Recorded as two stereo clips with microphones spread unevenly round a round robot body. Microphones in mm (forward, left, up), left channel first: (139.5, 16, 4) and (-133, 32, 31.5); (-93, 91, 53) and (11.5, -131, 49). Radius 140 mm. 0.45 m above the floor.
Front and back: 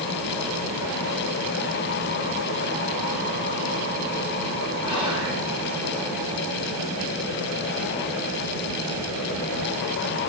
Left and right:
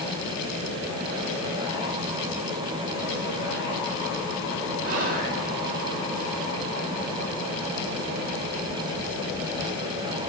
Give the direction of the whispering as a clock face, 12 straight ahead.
4 o'clock.